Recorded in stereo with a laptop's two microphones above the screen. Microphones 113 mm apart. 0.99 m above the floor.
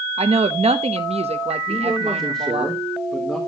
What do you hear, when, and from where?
0.2 s a woman speaking: 75° right (ahead or behind), 0.8 m
1.7 s a man speaking: 15° left (ahead or behind), 4 m